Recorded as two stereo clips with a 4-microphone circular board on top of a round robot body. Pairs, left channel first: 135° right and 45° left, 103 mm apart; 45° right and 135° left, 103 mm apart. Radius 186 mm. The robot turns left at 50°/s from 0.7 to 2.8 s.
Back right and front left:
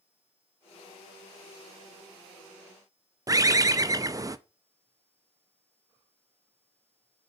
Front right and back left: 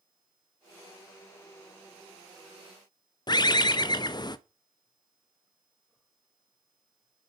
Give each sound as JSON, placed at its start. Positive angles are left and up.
{"t": 3.3, "sound": "a bird", "azimuth_deg": -5, "distance_m": 0.6}